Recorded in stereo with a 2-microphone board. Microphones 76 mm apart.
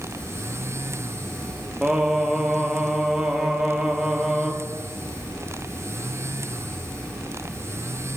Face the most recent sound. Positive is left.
turn(degrees=-10)  # may be behind; listen again after turning